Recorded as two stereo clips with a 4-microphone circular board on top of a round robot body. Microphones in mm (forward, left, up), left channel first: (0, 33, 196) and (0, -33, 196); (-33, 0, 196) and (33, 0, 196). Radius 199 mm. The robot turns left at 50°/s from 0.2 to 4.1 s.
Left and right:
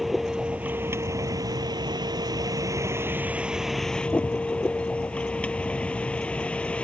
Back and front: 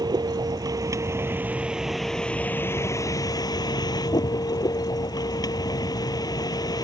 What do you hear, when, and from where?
0.0 s a vehicle: straight ahead; by 6.8 s 165° left